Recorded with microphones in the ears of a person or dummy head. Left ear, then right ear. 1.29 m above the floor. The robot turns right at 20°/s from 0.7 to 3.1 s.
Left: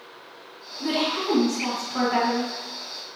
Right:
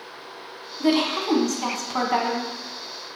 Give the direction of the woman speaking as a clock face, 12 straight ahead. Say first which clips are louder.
Right 3 dB; 4 o'clock.